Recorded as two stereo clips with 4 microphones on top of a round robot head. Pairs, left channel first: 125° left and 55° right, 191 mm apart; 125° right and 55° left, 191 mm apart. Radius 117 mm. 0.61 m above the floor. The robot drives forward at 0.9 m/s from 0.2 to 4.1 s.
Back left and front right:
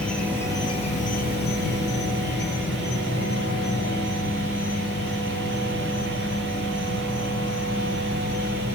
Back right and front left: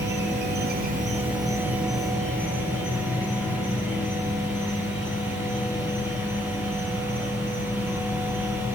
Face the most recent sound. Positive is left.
turn(degrees=165)